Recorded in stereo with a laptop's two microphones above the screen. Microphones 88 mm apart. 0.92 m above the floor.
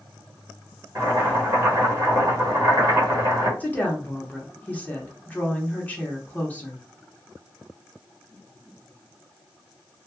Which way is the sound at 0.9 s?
30° right (ahead or behind).